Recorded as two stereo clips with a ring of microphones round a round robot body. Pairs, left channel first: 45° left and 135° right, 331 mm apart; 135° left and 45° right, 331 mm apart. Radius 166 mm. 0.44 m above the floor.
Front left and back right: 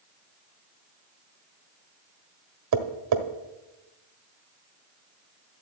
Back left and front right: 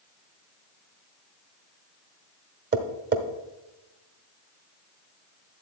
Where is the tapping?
100° right, 1.3 m.